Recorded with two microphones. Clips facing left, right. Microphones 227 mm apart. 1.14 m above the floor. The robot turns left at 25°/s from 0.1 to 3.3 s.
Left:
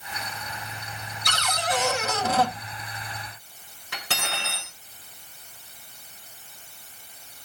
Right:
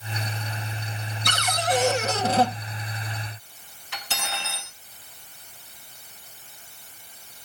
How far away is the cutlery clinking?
About 3.5 m.